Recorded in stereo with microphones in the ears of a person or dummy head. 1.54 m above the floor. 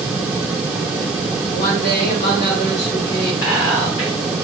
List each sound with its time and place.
1.5 s a woman speaking: 40° left (ahead or behind), 1.7 m
3.4 s whispering: 85° left, 1.7 m